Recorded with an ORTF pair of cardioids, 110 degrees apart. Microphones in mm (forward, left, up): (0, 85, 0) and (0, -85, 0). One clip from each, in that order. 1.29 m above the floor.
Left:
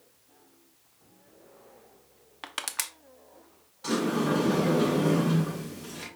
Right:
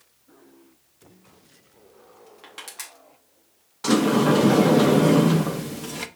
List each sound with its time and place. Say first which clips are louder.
2.4 s crushing: left 5 dB; 50° left, 0.6 m
3.8 s a sliding door: right 8 dB; 50° right, 0.6 m